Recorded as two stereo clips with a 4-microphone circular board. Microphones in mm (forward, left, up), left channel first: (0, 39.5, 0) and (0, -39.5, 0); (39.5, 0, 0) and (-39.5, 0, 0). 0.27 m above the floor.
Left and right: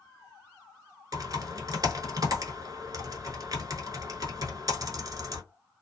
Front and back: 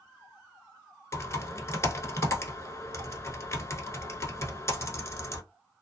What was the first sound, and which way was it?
Typing on a keyboard, 55° right.